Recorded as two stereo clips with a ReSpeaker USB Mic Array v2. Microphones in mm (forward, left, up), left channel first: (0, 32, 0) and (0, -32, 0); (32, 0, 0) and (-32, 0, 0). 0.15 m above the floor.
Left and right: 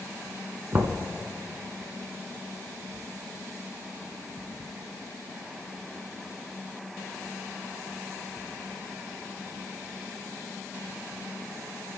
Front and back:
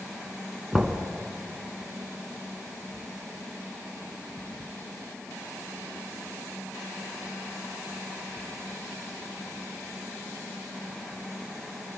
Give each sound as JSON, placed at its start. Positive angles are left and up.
{"t": 0.7, "sound": "knocking", "azimuth_deg": -95, "distance_m": 1.1}